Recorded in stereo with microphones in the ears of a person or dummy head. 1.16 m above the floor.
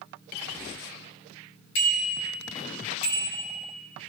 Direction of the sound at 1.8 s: 70° left (ahead or behind).